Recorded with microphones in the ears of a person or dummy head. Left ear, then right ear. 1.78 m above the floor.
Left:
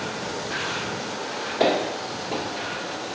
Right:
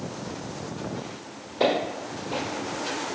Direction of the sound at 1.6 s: 10° left (ahead or behind).